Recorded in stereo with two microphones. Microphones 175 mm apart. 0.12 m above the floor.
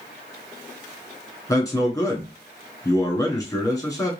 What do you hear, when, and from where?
1.5 s a man speaking: 20° left (ahead or behind), 1.2 m